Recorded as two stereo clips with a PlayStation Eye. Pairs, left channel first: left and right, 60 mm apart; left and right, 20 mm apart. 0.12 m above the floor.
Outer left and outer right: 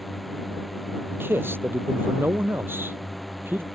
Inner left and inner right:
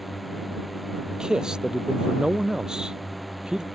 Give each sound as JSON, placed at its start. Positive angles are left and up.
{"t": 0.0, "sound": "a drone", "side_deg": 0}
{"t": 1.1, "sound": "a man speaking", "side_deg": -40}